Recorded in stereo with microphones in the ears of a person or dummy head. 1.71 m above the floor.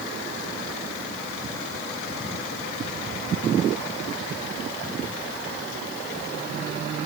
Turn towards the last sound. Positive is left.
No sound to turn to.